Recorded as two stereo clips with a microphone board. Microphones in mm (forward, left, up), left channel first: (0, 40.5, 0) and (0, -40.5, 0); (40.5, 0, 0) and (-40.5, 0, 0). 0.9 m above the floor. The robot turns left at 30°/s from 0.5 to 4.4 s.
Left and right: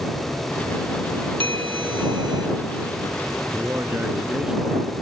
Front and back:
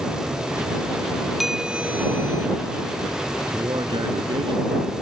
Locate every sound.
1.4 s a bell: 95° right; by 2.5 s 125° right
3.5 s a man speaking: 145° right; by 4.9 s 170° right